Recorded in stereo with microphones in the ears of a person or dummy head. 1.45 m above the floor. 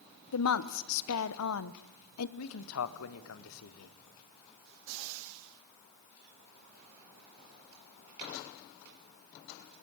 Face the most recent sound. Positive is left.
turn(degrees=85)